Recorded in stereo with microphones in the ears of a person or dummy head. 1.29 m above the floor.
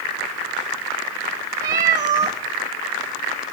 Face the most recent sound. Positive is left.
turn(degrees=-20)  # may be behind; listen again after turning